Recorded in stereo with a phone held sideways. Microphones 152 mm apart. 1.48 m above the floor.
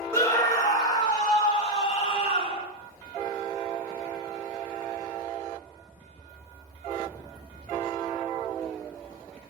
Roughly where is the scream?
Centre.